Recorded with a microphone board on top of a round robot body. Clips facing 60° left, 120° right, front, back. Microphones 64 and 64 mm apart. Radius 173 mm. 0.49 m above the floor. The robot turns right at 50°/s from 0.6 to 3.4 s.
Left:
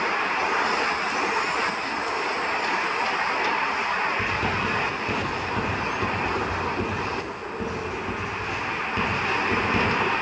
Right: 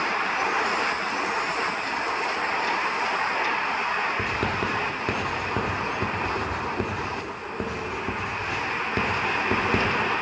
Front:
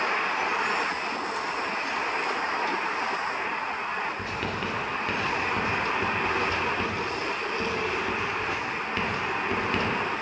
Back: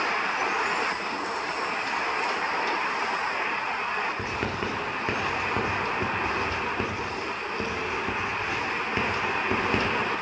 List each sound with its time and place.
4.2 s writing: 115° right, 1.9 m